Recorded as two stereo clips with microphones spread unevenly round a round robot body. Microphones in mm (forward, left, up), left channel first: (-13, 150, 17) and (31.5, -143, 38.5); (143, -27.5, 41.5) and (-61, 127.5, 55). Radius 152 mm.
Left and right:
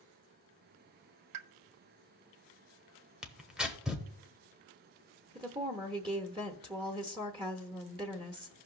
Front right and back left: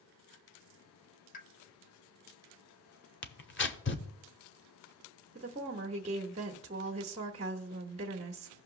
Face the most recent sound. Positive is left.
turn(degrees=-155)